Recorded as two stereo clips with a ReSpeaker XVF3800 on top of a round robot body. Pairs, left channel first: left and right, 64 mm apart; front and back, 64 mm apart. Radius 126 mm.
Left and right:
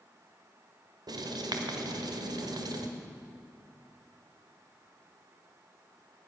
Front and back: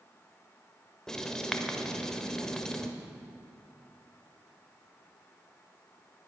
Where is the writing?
80° right, 1.1 m.